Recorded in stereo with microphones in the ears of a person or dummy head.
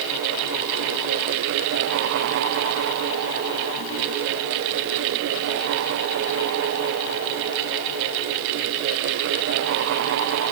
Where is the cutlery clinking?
I don't hear cutlery clinking.